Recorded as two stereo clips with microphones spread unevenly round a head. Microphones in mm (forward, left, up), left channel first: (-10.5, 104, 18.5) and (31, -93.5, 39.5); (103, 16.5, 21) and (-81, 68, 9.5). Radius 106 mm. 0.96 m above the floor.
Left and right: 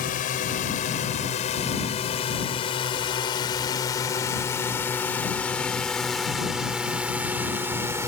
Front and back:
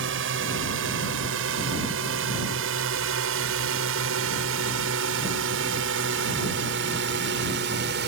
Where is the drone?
155° left; by 8.1 s 155° right.